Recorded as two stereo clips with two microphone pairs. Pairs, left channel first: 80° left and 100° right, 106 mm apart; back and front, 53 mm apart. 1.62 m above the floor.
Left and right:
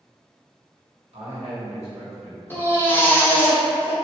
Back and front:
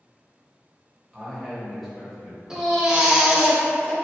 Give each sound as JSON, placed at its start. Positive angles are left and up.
{"t": 1.1, "sound": "a man speaking", "azimuth_deg": -90, "distance_m": 1.3}
{"t": 2.5, "sound": "a baby crying", "azimuth_deg": 55, "distance_m": 0.6}